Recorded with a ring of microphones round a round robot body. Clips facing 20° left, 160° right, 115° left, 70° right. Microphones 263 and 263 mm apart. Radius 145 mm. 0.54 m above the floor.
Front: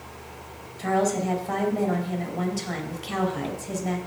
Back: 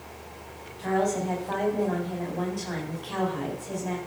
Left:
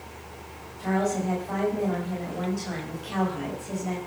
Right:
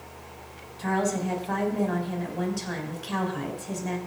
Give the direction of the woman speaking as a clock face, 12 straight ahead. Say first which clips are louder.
Front 2 dB, left 1 dB; 1 o'clock.